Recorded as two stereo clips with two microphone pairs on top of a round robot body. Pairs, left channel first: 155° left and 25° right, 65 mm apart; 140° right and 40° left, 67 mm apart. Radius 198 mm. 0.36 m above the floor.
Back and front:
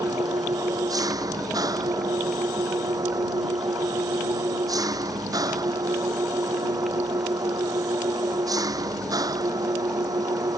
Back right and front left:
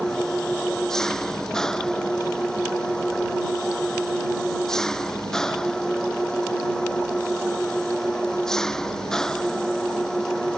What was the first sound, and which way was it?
An engine running, 60° right.